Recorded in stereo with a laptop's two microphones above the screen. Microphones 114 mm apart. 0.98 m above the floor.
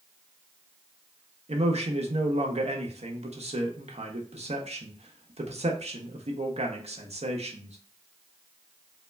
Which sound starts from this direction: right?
A man speaking, at 1.5 s.